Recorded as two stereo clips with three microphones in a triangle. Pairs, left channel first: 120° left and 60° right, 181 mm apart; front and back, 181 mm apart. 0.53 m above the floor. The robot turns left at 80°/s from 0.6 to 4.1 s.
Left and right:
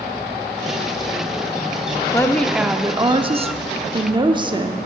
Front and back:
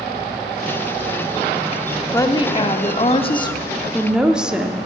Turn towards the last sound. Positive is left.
turn(degrees=-95)